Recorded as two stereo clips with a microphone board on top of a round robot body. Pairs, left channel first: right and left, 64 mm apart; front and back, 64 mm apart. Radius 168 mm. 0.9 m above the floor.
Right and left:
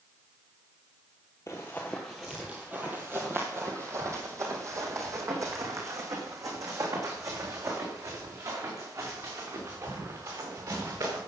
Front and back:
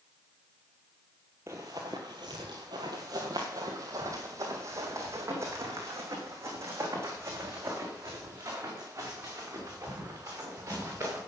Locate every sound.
1.5 s running footsteps: 130° right, 0.9 m; by 11.2 s 125° left, 5 m